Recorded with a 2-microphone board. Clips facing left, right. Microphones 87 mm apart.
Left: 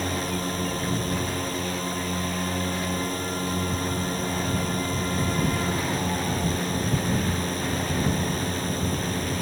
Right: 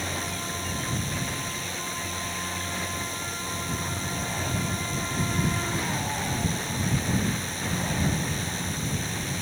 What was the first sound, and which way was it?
A drone, 50° left (ahead or behind).